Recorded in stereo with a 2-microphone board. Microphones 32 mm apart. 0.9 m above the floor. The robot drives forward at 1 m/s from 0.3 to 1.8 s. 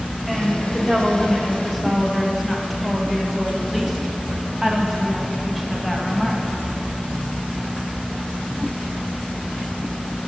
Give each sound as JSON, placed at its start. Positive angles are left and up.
{"t": 0.3, "sound": "a woman speaking", "side_deg": 0, "distance_m": 2.5}